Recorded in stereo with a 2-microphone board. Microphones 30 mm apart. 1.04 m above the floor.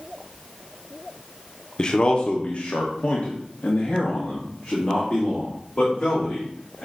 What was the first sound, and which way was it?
A man speaking, 30° left (ahead or behind).